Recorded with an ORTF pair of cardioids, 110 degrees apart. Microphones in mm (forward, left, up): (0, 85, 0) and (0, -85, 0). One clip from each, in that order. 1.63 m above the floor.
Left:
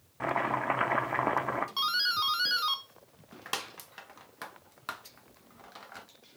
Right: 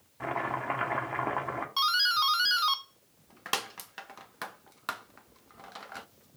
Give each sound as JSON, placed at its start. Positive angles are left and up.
{"t": 0.2, "sound": "chopping", "azimuth_deg": 25, "distance_m": 1.4}
{"t": 1.8, "sound": "a doorbell", "azimuth_deg": -15, "distance_m": 0.8}